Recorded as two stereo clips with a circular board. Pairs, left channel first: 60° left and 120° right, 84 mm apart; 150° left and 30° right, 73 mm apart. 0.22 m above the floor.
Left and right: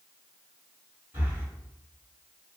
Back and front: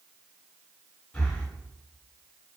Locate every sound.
1.1 s breathing: 150° right, 1.5 m